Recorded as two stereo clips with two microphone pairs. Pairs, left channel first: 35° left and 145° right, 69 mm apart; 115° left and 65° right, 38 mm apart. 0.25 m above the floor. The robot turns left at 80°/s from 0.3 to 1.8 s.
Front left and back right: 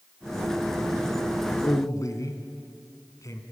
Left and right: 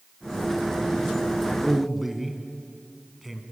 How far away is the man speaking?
About 2.0 m.